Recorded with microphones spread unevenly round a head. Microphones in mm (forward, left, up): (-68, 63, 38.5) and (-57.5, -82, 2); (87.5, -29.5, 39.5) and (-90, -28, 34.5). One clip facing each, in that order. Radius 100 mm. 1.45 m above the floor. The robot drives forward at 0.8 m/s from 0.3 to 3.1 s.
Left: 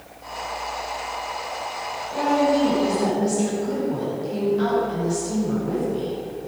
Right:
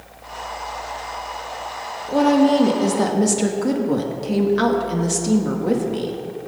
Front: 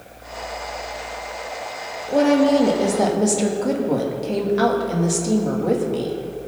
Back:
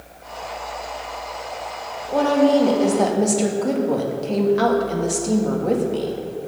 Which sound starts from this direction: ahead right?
A woman speaking, at 2.1 s.